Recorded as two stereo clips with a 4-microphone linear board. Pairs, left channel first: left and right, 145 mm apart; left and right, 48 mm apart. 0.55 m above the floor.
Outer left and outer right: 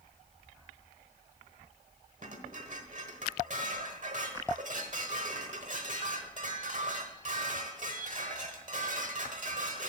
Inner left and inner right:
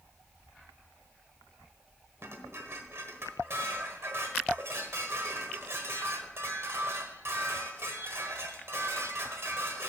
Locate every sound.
2.2 s dishes clattering: 60° right (ahead or behind), 1.2 m